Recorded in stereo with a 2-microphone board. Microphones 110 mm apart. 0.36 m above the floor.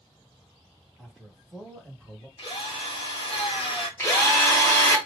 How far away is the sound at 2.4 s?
About 1.6 m.